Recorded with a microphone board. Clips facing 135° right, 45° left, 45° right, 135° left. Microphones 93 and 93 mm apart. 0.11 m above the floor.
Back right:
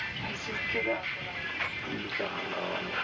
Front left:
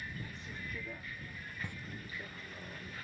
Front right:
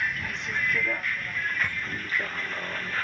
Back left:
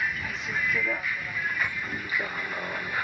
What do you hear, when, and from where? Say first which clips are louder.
0.0 s a vehicle: back right 8 dB, even; 140° right; by 3.0 s 145° right
1.6 s a camera shutter: back right 7 dB, even; 25° left